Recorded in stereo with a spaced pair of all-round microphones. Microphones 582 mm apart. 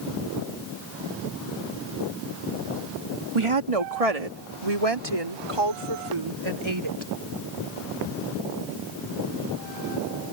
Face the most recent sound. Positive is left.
turn(degrees=-50)  # may be behind; listen again after turning